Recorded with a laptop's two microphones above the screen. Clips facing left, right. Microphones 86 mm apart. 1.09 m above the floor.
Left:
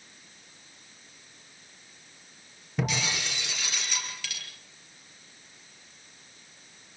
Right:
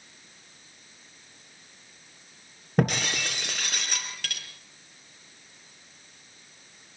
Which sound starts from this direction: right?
Breaking glass, at 2.8 s.